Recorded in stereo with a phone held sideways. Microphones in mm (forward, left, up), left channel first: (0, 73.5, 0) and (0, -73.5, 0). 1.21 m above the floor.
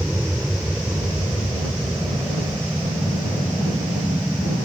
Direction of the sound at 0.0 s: Centre (ahead or behind).